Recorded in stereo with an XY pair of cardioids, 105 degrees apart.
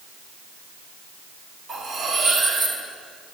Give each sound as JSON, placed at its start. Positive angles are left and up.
{"t": 1.7, "sound": "cutlery clinking", "azimuth_deg": -60, "distance_m": 4.0}